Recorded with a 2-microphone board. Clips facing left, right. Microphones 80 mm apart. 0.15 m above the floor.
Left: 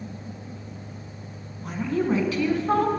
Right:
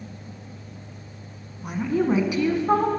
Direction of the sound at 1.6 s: 15° right (ahead or behind).